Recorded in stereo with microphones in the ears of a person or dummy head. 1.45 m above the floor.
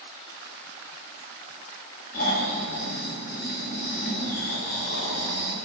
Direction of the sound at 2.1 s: 55° left (ahead or behind).